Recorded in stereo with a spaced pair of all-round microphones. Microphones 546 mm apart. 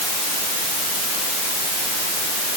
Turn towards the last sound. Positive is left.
No sound to turn to.